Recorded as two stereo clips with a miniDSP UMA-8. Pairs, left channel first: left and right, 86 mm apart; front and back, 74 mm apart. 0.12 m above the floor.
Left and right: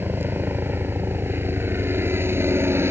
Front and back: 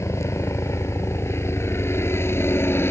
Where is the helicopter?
35° right; by 2.9 s 45° right.